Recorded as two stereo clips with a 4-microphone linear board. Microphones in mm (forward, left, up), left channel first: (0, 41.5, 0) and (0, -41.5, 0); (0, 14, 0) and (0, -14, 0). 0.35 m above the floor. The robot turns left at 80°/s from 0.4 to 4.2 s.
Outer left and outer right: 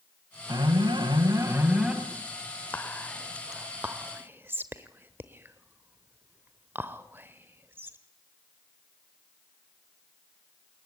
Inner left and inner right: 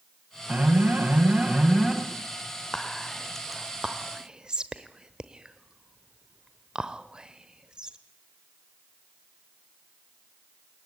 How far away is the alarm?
About 3 m.